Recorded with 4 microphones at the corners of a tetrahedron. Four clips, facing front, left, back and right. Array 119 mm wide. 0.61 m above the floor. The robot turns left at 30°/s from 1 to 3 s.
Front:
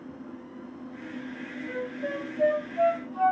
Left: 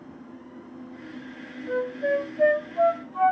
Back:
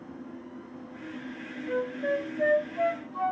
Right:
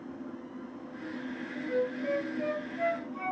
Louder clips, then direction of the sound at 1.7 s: Left 5 dB, back 5 dB; 100° left.